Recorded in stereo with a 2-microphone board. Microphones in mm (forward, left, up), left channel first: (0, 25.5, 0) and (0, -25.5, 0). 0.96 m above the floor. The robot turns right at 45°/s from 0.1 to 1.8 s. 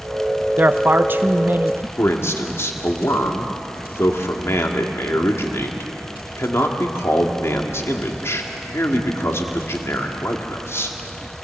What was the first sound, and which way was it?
A man speaking, 120° right.